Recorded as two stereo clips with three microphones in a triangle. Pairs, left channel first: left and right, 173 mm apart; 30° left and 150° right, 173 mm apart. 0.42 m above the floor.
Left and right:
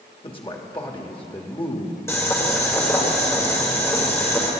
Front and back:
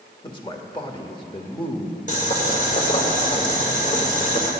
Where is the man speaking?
65° left, 0.9 m.